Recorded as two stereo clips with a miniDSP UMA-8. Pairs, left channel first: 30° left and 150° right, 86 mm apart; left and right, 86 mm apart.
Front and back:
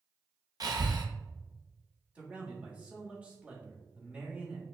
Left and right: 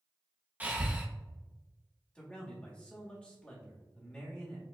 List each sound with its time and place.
0.6 s breathing: 150° right, 0.7 m
2.1 s a man speaking: 155° left, 1.4 m